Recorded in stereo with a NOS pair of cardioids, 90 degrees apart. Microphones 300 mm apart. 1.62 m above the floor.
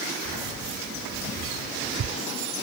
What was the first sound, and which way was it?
Keys jangling, 55° right.